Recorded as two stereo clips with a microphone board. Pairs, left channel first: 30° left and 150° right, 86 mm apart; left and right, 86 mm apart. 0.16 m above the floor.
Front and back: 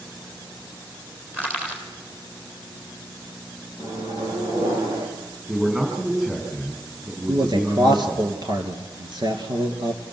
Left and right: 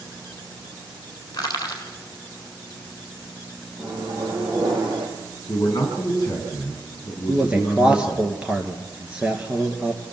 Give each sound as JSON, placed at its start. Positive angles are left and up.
{"t": 1.3, "sound": "crushing", "azimuth_deg": 140, "distance_m": 4.0}
{"t": 3.8, "sound": "a microwave", "azimuth_deg": -130, "distance_m": 6.0}
{"t": 5.5, "sound": "a man speaking", "azimuth_deg": 135, "distance_m": 7.5}
{"t": 7.3, "sound": "a man speaking", "azimuth_deg": -165, "distance_m": 3.0}